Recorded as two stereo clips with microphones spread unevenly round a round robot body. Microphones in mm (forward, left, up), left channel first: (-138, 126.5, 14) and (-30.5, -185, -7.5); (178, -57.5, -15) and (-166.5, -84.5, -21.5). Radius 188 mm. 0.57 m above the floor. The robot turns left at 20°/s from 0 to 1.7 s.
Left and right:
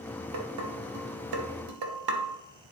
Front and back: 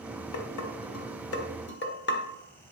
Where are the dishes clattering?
25° right, 1.2 m; by 2.3 s 55° right, 1.2 m.